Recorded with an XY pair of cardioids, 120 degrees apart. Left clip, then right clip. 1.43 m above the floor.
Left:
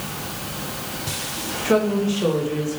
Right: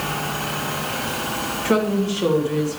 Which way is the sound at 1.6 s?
5° right.